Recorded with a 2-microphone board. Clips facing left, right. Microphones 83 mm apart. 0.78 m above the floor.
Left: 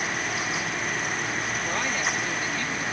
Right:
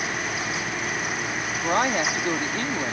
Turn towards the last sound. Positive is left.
turn(degrees=-50)  # may be behind; listen again after turning